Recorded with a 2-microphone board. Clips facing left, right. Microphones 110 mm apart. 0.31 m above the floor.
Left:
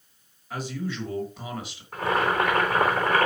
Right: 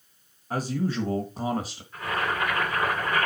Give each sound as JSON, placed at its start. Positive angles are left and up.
{"t": 0.5, "sound": "a man speaking", "side_deg": -40, "distance_m": 1.3}
{"t": 1.9, "sound": "boiling", "side_deg": 85, "distance_m": 3.5}